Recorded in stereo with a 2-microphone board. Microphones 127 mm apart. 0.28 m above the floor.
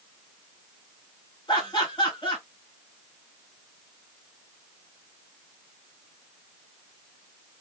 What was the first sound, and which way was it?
Laughter, 35° left (ahead or behind).